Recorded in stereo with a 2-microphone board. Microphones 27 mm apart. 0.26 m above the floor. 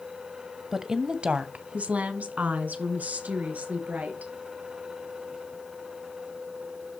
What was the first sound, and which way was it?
A woman speaking, 10° right (ahead or behind).